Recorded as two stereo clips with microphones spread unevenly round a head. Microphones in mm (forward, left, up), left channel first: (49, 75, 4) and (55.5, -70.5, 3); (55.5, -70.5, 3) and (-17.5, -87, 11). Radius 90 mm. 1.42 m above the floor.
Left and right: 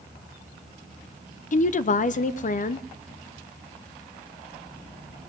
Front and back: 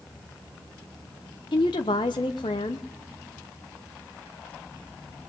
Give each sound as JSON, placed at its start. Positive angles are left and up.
{"t": 1.5, "sound": "a woman speaking", "azimuth_deg": 60, "distance_m": 0.6}